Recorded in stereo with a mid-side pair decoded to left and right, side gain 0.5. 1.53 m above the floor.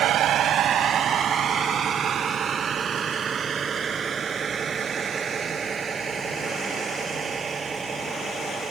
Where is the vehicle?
65° right; by 8.7 s 40° right.